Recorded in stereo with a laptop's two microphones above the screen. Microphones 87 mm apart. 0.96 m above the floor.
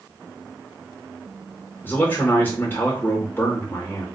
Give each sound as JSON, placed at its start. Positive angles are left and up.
{"t": 1.8, "sound": "a man speaking", "side_deg": 25, "distance_m": 1.0}